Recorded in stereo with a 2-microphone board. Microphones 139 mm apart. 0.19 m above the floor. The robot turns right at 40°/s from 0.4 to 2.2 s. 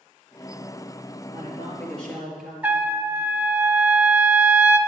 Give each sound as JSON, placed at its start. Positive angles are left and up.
{"t": 1.3, "sound": "a man speaking", "azimuth_deg": 145, "distance_m": 3.5}
{"t": 2.6, "sound": "a trumpet", "side_deg": -10, "distance_m": 0.7}